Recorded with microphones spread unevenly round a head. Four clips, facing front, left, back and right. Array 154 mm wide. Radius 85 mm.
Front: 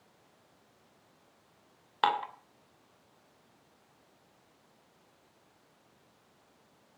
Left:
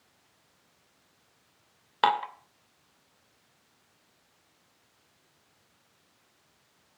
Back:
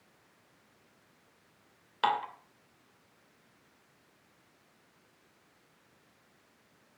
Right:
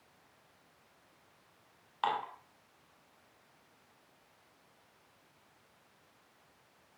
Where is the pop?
I don't hear a pop.